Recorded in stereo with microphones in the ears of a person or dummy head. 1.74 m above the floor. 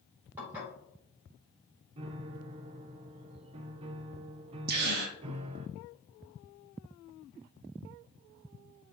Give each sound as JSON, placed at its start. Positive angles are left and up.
{"t": 0.4, "sound": "dishes clattering", "side_deg": -10, "distance_m": 4.0}
{"t": 2.0, "sound": "a piano", "side_deg": -35, "distance_m": 0.6}
{"t": 4.7, "sound": "a gasp", "side_deg": -55, "distance_m": 1.6}